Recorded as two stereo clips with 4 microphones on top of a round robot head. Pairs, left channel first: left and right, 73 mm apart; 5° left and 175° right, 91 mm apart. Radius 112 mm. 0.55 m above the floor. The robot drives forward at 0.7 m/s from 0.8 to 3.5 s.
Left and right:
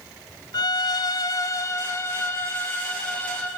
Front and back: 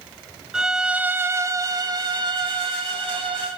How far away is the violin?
About 0.9 m.